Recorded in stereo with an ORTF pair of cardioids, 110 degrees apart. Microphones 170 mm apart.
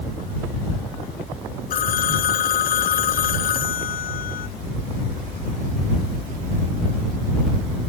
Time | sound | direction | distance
1.7 | a phone ringing | 55° left | ?